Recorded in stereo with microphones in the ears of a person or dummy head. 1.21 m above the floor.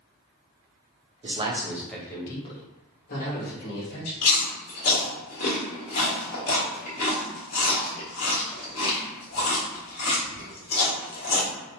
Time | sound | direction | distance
1.2 | a man speaking | 30° right (ahead or behind) | 0.9 m
4.2 | chewing | 45° left (ahead or behind) | 1.7 m